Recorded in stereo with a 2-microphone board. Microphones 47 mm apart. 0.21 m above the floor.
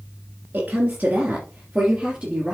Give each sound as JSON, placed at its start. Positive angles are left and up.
{"t": 0.5, "sound": "a woman speaking", "side_deg": -35, "distance_m": 2.5}